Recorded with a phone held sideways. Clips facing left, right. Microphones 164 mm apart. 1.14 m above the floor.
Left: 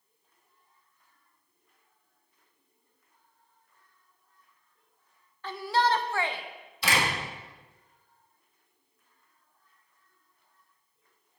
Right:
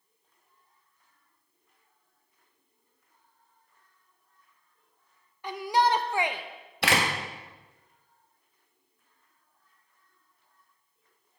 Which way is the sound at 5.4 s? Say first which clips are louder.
Right 2 dB; 15° right (ahead or behind).